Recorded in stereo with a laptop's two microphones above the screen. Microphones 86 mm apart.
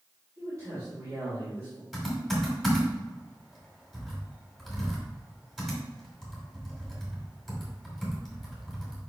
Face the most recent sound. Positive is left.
turn(degrees=-5)  # may be behind; listen again after turning